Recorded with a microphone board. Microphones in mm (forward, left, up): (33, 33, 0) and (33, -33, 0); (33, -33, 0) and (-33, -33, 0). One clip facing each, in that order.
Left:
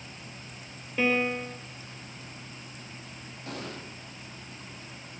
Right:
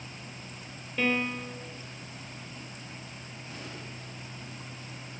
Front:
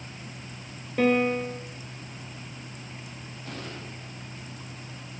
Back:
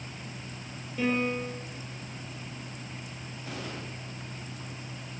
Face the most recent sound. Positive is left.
turn(degrees=95)